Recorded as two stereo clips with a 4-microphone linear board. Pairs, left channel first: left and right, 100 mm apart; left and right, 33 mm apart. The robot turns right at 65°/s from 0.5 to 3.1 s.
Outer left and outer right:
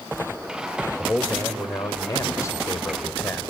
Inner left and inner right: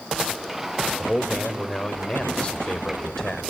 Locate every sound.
1.0 s a man speaking: 15° left, 1.5 m; by 3.4 s 150° left, 1.5 m